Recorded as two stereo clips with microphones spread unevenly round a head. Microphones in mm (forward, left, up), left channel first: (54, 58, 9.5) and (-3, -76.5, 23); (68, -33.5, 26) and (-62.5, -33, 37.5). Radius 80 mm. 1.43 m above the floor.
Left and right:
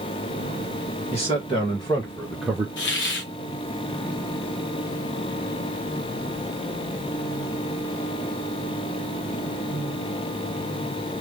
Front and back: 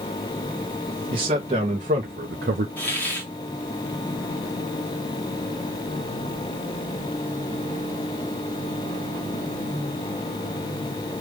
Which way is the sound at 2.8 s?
80° left.